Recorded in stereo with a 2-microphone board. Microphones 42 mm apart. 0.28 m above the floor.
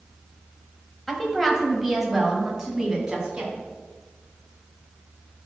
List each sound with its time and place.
1.1 s a woman speaking: 5° left (ahead or behind), 1.4 m; by 3.5 s 20° right (ahead or behind), 2.5 m